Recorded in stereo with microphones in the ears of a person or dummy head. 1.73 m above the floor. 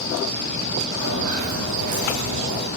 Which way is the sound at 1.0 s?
45° right (ahead or behind).